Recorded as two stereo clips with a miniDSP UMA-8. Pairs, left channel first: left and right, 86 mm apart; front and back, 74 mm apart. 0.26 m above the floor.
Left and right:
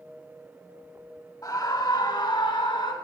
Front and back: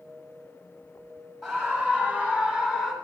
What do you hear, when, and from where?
1.4 s a scream: 85° left, 1.2 m; by 2.9 s 65° left, 2 m